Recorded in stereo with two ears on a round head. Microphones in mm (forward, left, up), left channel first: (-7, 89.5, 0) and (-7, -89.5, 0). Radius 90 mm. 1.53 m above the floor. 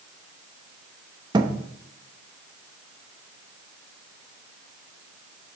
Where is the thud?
25° right (ahead or behind), 0.9 m.